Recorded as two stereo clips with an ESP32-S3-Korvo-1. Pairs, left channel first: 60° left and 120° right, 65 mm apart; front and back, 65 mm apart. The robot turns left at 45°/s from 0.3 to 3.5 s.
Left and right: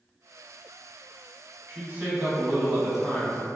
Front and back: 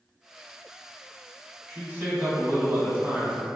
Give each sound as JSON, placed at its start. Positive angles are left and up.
{"t": 1.7, "sound": "a man speaking", "azimuth_deg": -140, "distance_m": 1.1}